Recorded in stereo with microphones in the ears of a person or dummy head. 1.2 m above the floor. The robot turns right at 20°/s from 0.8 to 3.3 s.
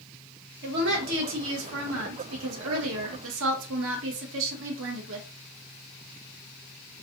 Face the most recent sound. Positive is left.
turn(degrees=-70)